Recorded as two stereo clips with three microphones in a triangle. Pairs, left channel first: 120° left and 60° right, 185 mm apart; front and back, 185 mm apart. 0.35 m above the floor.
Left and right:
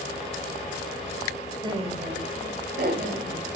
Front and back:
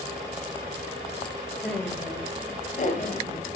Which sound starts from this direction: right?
Laughter, at 1.6 s.